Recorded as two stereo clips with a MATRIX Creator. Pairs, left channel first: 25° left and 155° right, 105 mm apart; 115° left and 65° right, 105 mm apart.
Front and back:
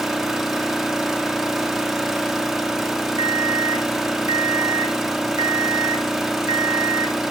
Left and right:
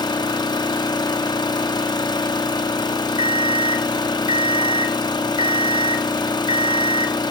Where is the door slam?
No door slam in this recording.